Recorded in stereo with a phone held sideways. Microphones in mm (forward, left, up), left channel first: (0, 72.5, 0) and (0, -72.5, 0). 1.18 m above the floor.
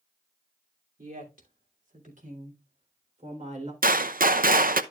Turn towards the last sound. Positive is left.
turn(degrees=-80)